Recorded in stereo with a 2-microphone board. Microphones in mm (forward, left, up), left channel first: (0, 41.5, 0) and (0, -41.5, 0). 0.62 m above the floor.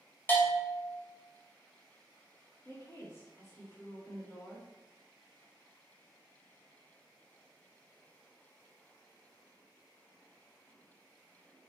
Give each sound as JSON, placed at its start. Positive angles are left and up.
{"t": 0.3, "sound": "a bell", "side_deg": 25, "distance_m": 1.5}
{"t": 2.6, "sound": "a woman speaking", "side_deg": 40, "distance_m": 1.9}